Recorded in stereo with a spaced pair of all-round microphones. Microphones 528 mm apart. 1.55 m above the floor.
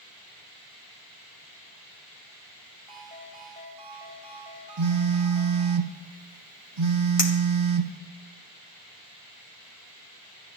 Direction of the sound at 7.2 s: 75° left (ahead or behind).